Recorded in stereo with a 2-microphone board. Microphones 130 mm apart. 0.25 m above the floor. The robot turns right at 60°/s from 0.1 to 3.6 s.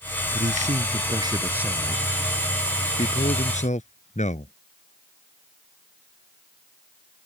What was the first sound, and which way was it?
A man speaking, 90° right.